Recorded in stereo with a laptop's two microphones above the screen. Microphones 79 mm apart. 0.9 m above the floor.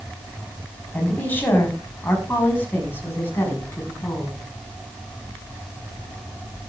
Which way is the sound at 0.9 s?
20° left (ahead or behind).